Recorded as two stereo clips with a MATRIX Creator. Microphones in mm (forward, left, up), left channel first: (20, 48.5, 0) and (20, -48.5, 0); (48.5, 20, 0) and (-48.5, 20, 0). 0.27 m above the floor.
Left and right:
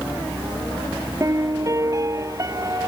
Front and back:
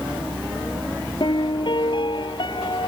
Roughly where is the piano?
Ahead right.